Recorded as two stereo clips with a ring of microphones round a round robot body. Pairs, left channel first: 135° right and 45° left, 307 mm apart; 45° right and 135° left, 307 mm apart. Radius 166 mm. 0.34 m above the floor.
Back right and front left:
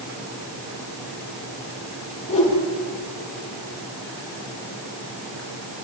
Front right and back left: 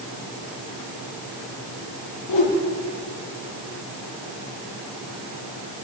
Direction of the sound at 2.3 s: 65° right.